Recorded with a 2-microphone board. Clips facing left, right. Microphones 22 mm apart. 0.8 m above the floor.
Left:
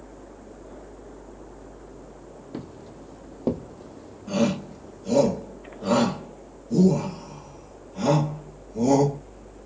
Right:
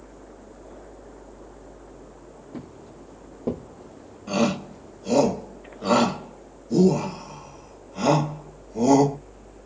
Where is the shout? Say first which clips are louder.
Right 1 dB; 35° right (ahead or behind), 1.2 m.